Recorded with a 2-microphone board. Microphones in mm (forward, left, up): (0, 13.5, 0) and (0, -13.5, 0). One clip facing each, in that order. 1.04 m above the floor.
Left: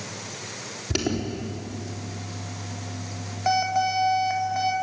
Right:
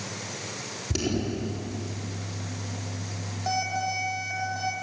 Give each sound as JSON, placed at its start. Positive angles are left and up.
{"t": 0.9, "sound": "an alarm", "side_deg": 35, "distance_m": 4.0}